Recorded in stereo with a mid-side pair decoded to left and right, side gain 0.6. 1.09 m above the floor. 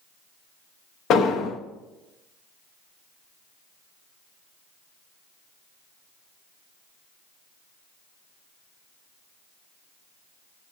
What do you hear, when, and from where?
1.1 s an explosion: 55° left, 0.7 m